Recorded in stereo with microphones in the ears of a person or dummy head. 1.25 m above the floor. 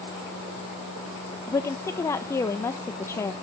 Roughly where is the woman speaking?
Left.